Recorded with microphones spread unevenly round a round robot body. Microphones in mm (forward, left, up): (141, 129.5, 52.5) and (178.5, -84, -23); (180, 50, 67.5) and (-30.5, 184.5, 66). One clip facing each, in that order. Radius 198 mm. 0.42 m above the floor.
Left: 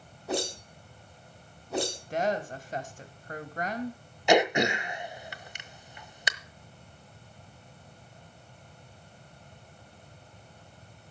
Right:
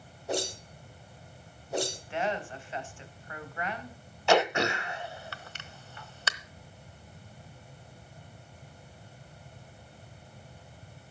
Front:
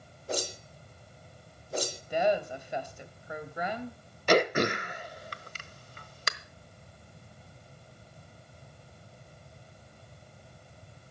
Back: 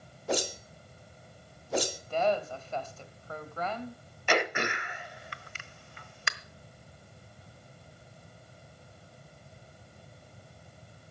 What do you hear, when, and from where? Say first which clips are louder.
0.3 s a whoosh: left 1 dB, back 3 dB; 140° left, 1.7 m
2.1 s a woman speaking: left 5 dB, front 1 dB; 45° left, 3 m
4.3 s throat clearing: left 2 dB, front 6 dB; 20° left, 1.2 m